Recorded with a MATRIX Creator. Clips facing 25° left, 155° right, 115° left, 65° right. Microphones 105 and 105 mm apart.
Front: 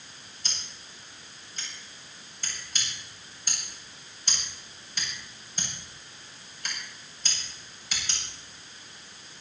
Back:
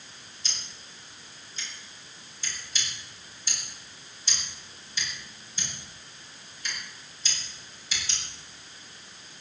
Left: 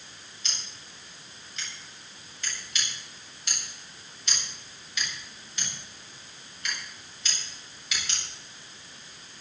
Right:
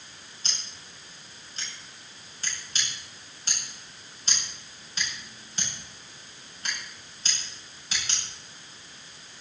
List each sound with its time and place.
0.4 s scissors: 10° right, 9 m